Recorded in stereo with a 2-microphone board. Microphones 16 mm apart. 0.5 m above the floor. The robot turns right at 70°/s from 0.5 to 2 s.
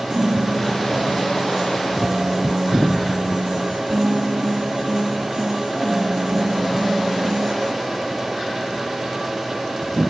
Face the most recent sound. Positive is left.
turn(degrees=-45)